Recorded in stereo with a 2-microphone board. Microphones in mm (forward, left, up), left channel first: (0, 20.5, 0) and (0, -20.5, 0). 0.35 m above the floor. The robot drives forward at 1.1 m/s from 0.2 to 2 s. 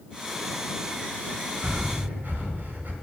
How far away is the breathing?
About 1.6 m.